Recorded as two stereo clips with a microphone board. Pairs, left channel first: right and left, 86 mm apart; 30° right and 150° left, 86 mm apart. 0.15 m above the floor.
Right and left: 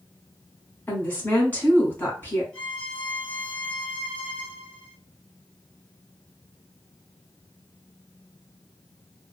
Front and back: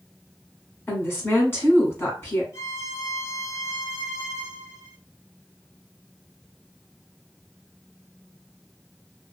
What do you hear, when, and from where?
0.9 s a woman speaking: 50° right, 1.3 m
2.5 s a violin: 25° right, 1.0 m